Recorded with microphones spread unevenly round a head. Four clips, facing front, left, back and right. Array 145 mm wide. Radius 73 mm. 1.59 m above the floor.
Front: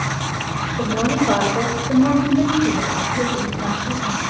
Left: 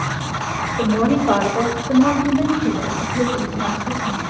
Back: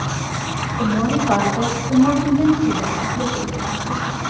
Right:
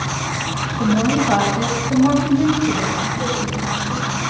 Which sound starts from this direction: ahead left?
A woman speaking, at 0.8 s.